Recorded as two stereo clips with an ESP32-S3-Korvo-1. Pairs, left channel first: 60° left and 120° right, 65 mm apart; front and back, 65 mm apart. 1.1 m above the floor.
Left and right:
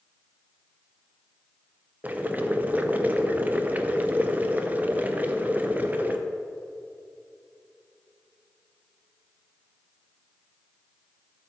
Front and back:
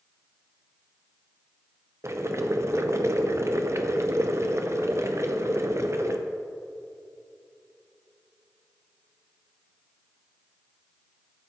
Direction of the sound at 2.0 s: 175° right.